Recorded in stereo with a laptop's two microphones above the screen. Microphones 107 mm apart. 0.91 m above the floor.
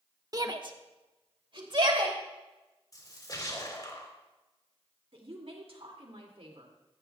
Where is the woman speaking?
70° right (ahead or behind), 2.5 m.